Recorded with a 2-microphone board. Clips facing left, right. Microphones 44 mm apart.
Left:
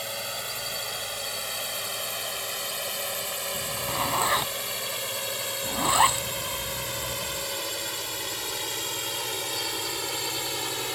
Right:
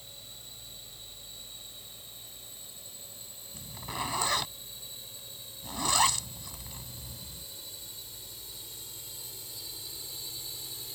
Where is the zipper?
20° left (ahead or behind).